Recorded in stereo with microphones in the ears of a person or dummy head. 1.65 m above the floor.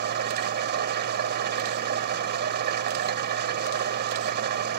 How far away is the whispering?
I don't hear whispering.